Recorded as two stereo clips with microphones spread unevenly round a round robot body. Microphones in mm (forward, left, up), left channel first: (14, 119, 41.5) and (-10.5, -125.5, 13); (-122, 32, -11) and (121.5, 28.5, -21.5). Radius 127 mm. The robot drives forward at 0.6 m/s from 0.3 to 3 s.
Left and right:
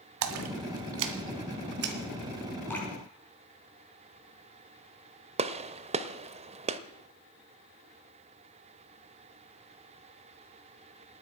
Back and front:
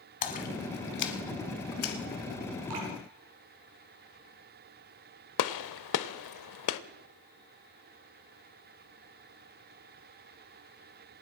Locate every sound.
0.2 s a splash: 120° right, 1.2 m; by 2.0 s 145° right, 1.9 m
2.7 s dripping: straight ahead, 5 m
5.4 s a gunshot: 160° right, 0.7 m